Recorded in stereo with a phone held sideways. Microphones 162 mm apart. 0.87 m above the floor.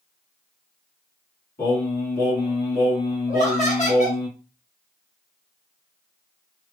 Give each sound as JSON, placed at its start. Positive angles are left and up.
{"t": 1.6, "sound": "singing", "side_deg": 70, "distance_m": 1.7}
{"t": 3.3, "sound": "laughter", "side_deg": 45, "distance_m": 1.2}